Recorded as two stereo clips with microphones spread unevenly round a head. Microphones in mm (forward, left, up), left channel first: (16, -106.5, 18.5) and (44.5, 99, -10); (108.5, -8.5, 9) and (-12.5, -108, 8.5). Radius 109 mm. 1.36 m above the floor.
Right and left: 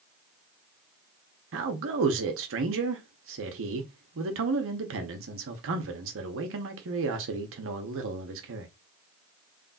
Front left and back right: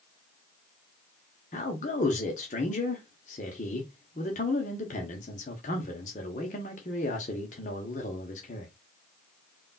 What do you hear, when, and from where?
1.5 s a man speaking: 90° left, 0.9 m